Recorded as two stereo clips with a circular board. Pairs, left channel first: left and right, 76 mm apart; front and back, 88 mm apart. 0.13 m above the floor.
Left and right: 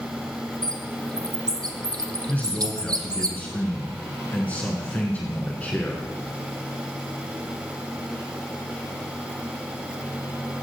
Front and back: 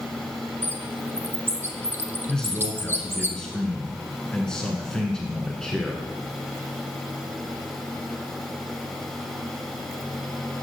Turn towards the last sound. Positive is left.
turn(degrees=70)